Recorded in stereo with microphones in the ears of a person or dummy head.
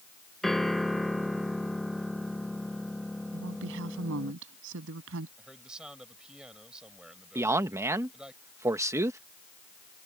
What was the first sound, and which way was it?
A piano, centre (ahead or behind).